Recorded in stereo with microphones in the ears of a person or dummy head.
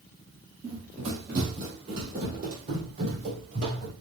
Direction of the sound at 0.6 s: 30° right (ahead or behind).